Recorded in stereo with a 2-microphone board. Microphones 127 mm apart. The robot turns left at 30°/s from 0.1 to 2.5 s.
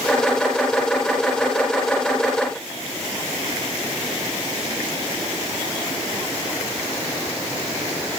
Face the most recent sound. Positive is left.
No sound to turn to.